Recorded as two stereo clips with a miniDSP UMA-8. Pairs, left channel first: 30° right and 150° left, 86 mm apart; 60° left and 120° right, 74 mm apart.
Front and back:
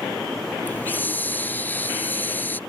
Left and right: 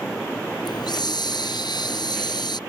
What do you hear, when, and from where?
0.7 s a hiss: 40° left